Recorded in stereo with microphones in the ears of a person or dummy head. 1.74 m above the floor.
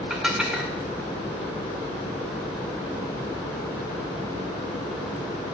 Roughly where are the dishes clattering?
Centre.